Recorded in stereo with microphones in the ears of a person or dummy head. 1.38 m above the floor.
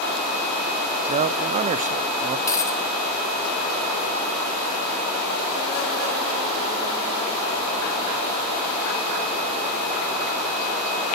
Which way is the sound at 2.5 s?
15° left (ahead or behind).